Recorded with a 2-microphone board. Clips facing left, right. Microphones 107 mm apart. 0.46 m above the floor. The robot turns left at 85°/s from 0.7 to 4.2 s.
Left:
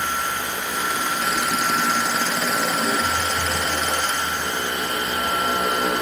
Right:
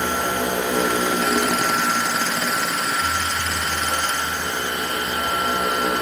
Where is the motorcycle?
55° right; by 6.0 s 5° left.